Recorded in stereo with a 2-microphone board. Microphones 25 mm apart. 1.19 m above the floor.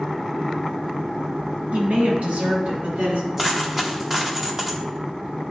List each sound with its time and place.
1.7 s a woman speaking: 65° right (ahead or behind), 1.7 m
3.4 s a dropped coin: 25° right (ahead or behind), 1.2 m